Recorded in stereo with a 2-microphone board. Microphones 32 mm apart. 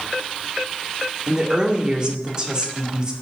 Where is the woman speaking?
25° right (ahead or behind), 2.0 m.